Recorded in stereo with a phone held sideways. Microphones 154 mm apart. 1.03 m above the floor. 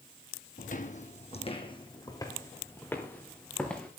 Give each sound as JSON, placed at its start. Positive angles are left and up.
{"t": 0.6, "sound": "footsteps", "side_deg": 60, "distance_m": 2.0}